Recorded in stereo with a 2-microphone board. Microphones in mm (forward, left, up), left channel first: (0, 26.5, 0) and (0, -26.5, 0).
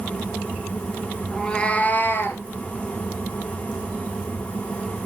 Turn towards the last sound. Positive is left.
turn(degrees=50)  # may be behind; listen again after turning